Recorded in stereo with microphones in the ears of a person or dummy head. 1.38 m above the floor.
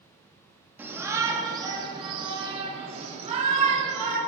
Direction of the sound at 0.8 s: 10° right (ahead or behind).